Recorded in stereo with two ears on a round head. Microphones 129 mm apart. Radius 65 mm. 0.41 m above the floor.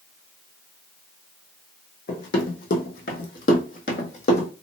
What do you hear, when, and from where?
2.1 s running footsteps: 60° left (ahead or behind), 1.3 m; by 4.5 s 45° left (ahead or behind), 1.2 m